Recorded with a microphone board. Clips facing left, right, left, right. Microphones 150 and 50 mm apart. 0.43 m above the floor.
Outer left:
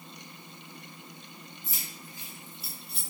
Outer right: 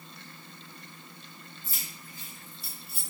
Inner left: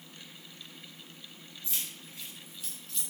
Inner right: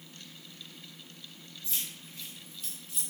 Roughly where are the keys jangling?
Centre.